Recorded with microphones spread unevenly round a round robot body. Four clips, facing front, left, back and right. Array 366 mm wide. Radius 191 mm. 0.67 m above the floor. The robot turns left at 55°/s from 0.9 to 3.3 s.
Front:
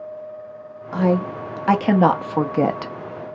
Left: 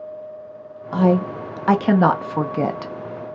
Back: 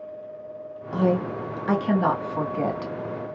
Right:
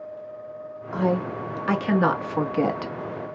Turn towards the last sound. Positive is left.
turn(degrees=-25)